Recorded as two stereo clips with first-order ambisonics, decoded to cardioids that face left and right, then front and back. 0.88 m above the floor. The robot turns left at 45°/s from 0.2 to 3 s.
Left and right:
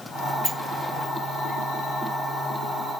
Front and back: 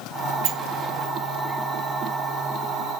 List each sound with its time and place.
0.4 s a sliding door: straight behind, 0.5 m; by 3.0 s 65° left, 0.5 m